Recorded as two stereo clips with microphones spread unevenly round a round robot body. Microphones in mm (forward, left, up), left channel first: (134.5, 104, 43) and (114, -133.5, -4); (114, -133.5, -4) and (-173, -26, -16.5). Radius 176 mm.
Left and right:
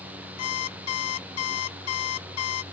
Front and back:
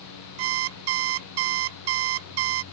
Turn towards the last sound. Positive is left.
turn(degrees=135)